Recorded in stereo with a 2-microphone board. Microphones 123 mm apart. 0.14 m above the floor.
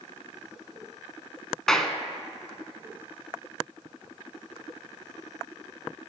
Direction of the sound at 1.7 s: 5° left (ahead or behind).